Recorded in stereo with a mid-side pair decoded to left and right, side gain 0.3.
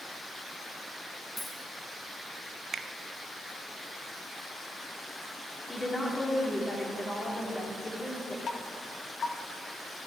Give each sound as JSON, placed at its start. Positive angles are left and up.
{"t": 1.4, "sound": "a dropped coin", "azimuth_deg": 25, "distance_m": 4.5}
{"t": 2.7, "sound": "a finger snap", "azimuth_deg": -60, "distance_m": 0.8}
{"t": 5.7, "sound": "a woman speaking", "azimuth_deg": 20, "distance_m": 4.0}
{"t": 8.5, "sound": "dripping", "azimuth_deg": 70, "distance_m": 1.3}